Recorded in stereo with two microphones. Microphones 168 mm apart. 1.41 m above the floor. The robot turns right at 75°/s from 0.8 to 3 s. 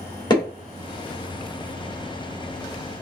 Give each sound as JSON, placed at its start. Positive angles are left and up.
{"t": 0.3, "sound": "hammering", "side_deg": 25, "distance_m": 1.8}